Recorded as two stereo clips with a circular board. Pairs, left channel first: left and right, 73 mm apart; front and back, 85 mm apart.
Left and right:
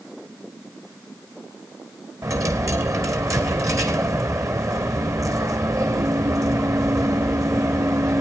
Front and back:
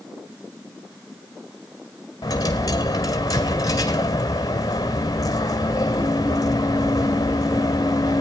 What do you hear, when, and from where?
2.2 s a dropped coin: 45° right, 1.6 m